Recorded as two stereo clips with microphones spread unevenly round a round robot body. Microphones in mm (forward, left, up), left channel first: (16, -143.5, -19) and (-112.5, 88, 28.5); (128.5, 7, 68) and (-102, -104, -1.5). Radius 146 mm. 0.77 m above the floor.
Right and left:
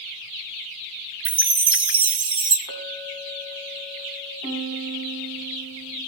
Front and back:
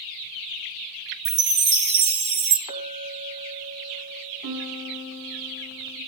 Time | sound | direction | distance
1.2 | a chime | 165° left | 1.5 m
2.7 | a clink | 55° left | 1.6 m
4.4 | a piano | 175° right | 2 m